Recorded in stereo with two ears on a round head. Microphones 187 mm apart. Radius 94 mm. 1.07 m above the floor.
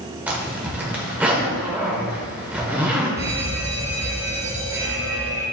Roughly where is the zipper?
Centre.